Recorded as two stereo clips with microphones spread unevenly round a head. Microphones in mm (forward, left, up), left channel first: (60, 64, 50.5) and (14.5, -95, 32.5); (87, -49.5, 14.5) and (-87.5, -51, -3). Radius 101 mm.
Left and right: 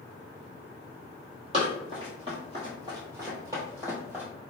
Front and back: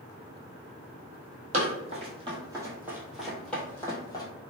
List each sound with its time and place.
1.5 s running footsteps: 160° right, 1.5 m; by 4.2 s 20° right, 1.4 m